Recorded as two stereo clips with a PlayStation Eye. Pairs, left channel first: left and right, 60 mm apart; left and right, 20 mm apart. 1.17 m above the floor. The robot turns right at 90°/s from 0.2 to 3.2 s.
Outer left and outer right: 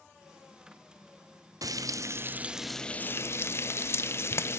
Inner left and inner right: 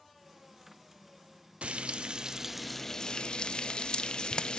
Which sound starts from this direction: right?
Frying, at 1.6 s.